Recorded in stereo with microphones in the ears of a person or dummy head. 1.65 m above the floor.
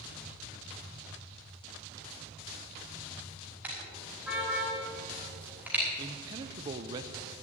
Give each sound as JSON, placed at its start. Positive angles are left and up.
{"t": 3.6, "sound": "a car horn", "side_deg": -5, "distance_m": 5.0}
{"t": 6.0, "sound": "a man speaking", "side_deg": -25, "distance_m": 0.7}